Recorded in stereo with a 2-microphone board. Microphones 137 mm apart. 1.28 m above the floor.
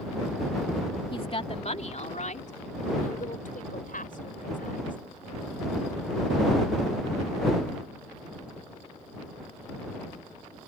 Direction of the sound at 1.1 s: 40° left (ahead or behind).